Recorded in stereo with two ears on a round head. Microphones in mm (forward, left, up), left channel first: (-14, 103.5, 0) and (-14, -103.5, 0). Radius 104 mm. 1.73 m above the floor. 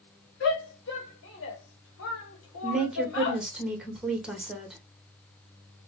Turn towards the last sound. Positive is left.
turn(degrees=-5)  # may be behind; listen again after turning